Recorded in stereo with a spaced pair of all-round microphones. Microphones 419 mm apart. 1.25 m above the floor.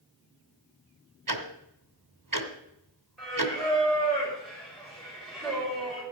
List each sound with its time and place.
1.3 s ticking: 50° right (ahead or behind), 1.7 m
3.2 s singing: centre (ahead or behind), 6 m